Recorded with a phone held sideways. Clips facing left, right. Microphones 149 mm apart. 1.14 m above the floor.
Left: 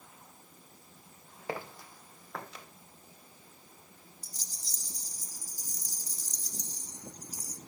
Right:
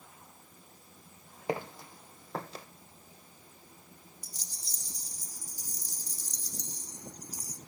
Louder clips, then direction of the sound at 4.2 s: Even; 65° right (ahead or behind).